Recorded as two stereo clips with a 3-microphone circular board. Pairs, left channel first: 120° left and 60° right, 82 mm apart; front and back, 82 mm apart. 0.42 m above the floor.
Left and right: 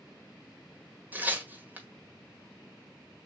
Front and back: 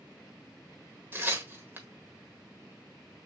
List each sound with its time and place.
1.1 s tearing paper: 125° right, 1.5 m